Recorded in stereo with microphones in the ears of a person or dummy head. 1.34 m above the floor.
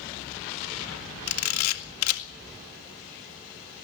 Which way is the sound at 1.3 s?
80° left.